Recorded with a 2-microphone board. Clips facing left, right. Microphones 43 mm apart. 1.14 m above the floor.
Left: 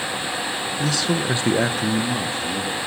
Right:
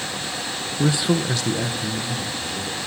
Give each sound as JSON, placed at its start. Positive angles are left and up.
{"t": 0.8, "sound": "a man speaking", "side_deg": -35, "distance_m": 0.6}